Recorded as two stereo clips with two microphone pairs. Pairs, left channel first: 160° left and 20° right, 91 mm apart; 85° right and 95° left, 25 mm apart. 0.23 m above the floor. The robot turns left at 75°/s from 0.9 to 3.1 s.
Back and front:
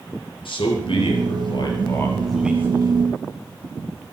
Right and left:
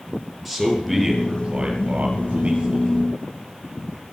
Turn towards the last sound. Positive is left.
turn(degrees=10)